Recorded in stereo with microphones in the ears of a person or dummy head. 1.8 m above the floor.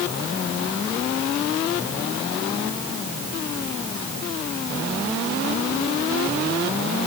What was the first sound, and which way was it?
Only background noise.